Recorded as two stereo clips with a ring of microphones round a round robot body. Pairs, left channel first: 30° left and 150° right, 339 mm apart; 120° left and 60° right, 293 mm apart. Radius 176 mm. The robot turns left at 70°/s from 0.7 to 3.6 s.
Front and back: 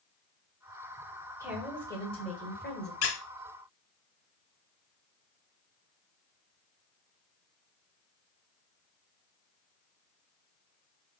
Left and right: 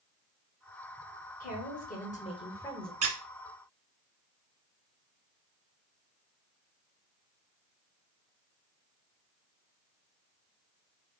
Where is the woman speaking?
140° left, 1.3 m; by 2.9 s 30° left, 1.3 m.